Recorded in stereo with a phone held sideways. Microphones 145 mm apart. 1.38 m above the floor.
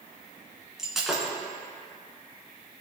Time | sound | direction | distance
0.8 | breaking glass | 5° right (ahead or behind) | 2.5 m